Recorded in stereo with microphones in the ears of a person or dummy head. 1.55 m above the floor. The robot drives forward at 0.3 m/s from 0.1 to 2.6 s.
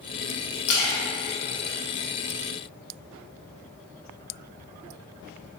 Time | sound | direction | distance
0.7 | a splash | 60° left (ahead or behind) | 0.6 m